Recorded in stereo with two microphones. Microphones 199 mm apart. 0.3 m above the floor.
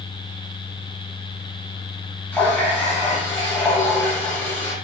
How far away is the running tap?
About 1.1 m.